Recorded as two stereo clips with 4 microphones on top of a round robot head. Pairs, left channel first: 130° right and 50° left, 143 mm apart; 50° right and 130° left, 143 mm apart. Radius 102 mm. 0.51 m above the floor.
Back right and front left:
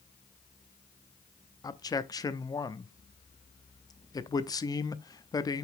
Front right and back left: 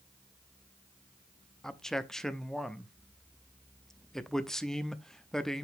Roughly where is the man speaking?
Behind right.